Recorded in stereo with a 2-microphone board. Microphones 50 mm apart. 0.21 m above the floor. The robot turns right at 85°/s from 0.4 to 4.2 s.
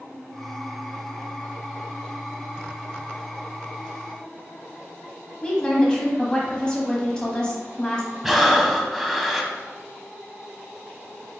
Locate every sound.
5.4 s a woman speaking: 15° left (ahead or behind), 1.1 m
8.2 s breathing: 5° right (ahead or behind), 0.6 m